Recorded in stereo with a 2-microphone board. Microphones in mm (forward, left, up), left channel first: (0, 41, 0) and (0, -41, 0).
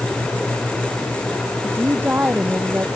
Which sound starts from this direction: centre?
A woman speaking, at 1.6 s.